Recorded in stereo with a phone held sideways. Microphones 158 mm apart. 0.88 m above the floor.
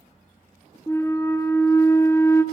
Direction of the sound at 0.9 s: 15° left (ahead or behind).